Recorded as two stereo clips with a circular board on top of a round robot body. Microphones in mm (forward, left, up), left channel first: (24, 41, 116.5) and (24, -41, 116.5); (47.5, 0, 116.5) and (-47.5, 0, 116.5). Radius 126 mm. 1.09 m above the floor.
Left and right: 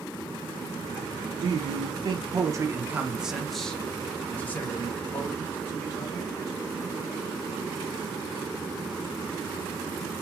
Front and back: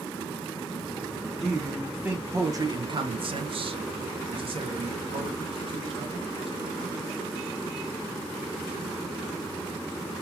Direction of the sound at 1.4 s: 85° right.